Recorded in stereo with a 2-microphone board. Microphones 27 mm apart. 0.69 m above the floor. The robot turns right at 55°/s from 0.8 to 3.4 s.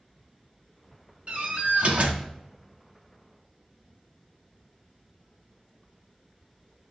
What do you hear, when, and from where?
1.3 s a door slam: 125° right, 0.8 m; by 2.2 s 70° right, 0.8 m